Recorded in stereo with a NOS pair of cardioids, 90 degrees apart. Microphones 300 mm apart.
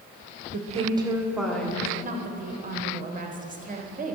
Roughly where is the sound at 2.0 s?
Ahead right.